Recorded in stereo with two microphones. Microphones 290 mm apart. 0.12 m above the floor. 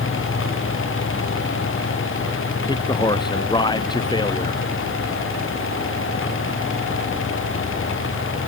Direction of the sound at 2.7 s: 15° left (ahead or behind).